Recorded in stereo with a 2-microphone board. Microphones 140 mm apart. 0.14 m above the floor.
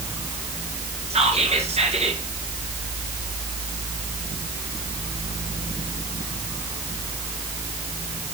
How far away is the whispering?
About 2.5 m.